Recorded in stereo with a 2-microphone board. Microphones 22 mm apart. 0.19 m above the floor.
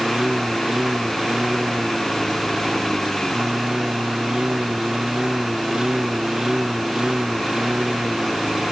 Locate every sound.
0.0 s a lawn mower: 30° right (ahead or behind)